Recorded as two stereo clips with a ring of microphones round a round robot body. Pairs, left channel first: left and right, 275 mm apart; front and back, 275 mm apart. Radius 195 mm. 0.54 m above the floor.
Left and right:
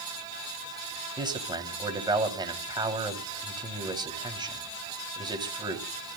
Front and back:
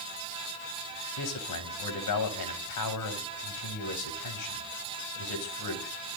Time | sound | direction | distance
1.2 | a man speaking | 15° right | 4 m